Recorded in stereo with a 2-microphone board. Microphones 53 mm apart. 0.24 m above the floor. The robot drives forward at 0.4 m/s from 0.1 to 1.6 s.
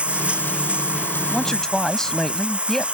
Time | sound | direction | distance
0.0 | running water | 25° right (ahead or behind) | ?
1.3 | a man speaking | 10° left (ahead or behind) | ?